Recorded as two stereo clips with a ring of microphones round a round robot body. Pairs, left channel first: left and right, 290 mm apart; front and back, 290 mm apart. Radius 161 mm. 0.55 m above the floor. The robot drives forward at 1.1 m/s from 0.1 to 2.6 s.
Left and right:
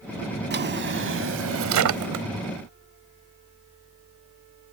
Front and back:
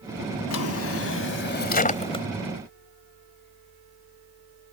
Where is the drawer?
35° right; by 2.2 s 75° right.